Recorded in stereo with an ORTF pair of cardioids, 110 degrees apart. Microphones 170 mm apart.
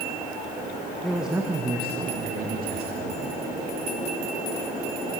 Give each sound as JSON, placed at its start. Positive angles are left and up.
{"t": 1.0, "sound": "a man speaking", "azimuth_deg": 5, "distance_m": 1.9}